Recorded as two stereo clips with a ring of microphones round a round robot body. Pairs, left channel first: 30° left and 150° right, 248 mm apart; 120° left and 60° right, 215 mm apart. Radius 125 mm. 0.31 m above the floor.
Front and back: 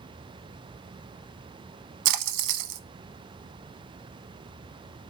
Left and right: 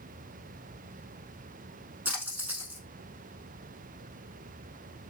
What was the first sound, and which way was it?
A splash, 145° right.